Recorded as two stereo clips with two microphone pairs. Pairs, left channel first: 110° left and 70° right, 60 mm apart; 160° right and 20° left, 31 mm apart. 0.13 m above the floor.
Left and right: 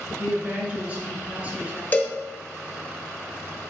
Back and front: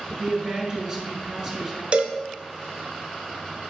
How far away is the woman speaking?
About 1.3 m.